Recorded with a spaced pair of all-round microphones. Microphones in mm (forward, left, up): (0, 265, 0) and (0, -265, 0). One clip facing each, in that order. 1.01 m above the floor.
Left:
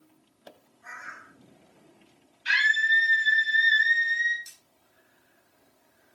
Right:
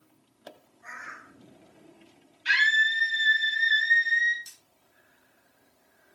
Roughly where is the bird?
Centre.